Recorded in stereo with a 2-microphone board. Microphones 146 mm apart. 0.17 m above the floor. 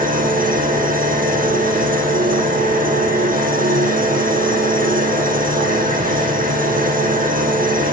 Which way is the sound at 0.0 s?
75° right (ahead or behind).